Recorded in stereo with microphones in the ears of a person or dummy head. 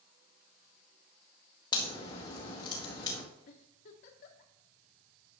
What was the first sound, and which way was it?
A crack, 20° left (ahead or behind).